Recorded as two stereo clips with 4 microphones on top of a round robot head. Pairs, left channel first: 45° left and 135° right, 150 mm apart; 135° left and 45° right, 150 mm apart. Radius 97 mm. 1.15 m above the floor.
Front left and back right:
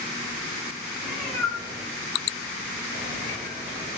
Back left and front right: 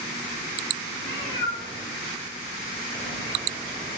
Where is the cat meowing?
150° left, 1.3 m; by 4.0 s 50° left, 2.5 m.